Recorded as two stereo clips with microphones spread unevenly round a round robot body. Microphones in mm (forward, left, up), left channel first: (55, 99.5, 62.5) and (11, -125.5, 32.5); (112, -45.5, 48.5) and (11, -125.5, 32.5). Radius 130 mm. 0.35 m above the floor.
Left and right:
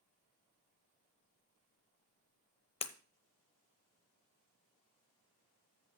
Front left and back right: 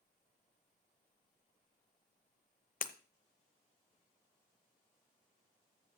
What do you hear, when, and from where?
2.8 s breaking glass: 10° left, 0.8 m